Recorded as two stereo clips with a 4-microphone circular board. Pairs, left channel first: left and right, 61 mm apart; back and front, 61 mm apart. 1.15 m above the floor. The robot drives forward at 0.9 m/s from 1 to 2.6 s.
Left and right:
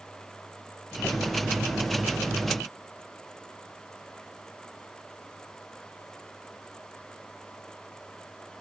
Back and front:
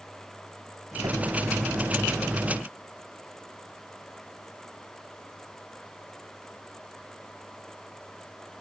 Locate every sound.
1.0 s a whoosh: 15° left